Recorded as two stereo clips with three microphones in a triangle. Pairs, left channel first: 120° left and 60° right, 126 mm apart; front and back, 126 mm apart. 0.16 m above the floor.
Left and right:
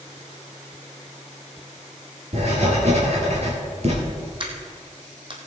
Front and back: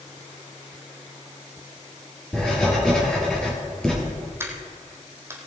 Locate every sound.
2.3 s writing: 85° right, 3.5 m
4.4 s a dropped coin: 110° right, 1.9 m